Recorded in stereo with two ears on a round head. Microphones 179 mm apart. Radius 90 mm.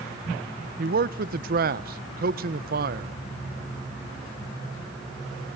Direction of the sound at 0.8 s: 50° right (ahead or behind).